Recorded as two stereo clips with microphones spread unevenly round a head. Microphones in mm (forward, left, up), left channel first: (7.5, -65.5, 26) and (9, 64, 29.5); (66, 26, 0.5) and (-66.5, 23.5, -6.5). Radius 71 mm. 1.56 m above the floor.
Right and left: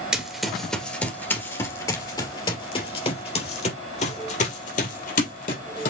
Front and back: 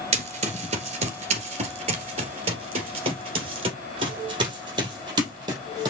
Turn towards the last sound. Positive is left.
turn(degrees=-115)